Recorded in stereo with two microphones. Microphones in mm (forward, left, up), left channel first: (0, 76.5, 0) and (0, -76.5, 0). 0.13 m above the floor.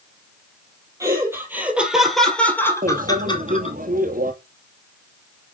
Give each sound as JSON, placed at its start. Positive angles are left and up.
{"t": 1.0, "sound": "laughter", "side_deg": -20, "distance_m": 4.0}
{"t": 2.8, "sound": "a microwave", "side_deg": -65, "distance_m": 2.5}